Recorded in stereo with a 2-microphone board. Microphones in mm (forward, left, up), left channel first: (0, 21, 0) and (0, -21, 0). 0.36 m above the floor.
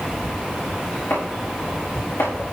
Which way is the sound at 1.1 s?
75° left (ahead or behind).